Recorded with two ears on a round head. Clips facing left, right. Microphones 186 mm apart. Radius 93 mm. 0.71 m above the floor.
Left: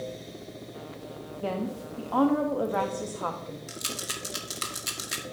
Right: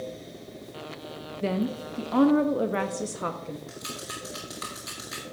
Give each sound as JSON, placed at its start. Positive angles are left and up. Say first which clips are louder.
{"t": 1.4, "sound": "a woman speaking", "louder": "right 4 dB", "side_deg": -25, "distance_m": 0.5}
{"t": 3.7, "sound": "a rattle", "louder": "even", "side_deg": 35, "distance_m": 1.3}